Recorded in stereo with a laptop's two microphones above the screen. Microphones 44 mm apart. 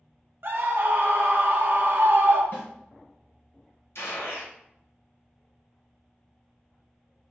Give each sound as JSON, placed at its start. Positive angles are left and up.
{"t": 0.4, "sound": "a scream", "side_deg": -55, "distance_m": 0.8}
{"t": 2.5, "sound": "a snare drum", "side_deg": 60, "distance_m": 1.5}
{"t": 4.0, "sound": "a gunshot", "side_deg": 85, "distance_m": 0.8}